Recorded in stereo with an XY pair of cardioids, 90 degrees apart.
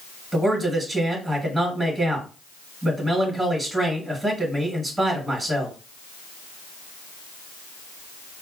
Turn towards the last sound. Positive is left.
turn(degrees=-20)